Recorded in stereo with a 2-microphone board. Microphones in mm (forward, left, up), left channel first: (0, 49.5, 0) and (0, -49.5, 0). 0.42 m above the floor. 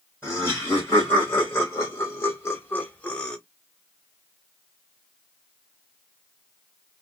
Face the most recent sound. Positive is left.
turn(degrees=10)  # may be behind; listen again after turning